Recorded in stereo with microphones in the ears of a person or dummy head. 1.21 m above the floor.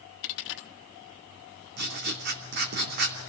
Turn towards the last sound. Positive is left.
turn(degrees=-55)  # may be behind; listen again after turning